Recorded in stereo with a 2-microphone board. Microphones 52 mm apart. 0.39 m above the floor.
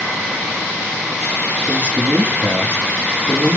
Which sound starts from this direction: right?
A man speaking, at 1.7 s.